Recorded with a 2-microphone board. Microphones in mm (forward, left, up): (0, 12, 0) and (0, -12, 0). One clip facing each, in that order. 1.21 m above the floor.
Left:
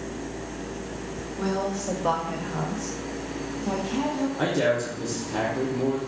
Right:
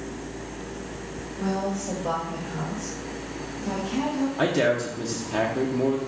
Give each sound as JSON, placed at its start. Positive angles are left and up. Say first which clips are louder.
{"t": 1.4, "sound": "a woman speaking", "louder": "even", "side_deg": 50, "distance_m": 1.1}
{"t": 4.4, "sound": "a man speaking", "louder": "right 2 dB", "side_deg": -25, "distance_m": 0.6}